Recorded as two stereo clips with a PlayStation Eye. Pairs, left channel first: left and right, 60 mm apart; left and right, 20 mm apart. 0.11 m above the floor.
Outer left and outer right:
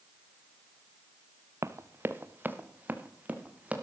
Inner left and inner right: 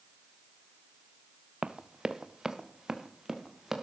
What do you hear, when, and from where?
1.6 s running footsteps: 50° right (ahead or behind), 0.8 m; by 3.8 s 25° right (ahead or behind), 2 m